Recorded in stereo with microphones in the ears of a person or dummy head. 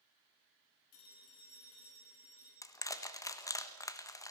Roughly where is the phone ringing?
Left.